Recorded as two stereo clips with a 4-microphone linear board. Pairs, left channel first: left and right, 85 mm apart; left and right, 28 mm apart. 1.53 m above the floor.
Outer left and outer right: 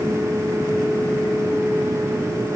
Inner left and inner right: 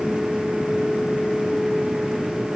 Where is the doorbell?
No doorbell in this recording.